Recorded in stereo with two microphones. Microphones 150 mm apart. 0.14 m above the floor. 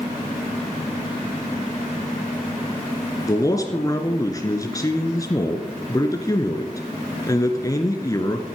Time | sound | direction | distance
3.3 | a man speaking | 20° left (ahead or behind) | 1.5 m